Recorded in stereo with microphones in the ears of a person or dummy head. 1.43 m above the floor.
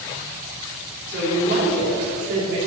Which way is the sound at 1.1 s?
75° right (ahead or behind).